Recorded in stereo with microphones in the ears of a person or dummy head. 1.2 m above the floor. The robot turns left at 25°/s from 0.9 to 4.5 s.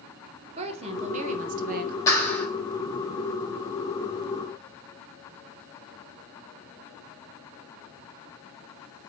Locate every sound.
0.6 s a woman speaking: 35° right (ahead or behind), 0.8 m; by 2.0 s 45° right (ahead or behind), 0.8 m
2.1 s a clap: 20° left (ahead or behind), 2.0 m; by 2.5 s 10° left (ahead or behind), 2.0 m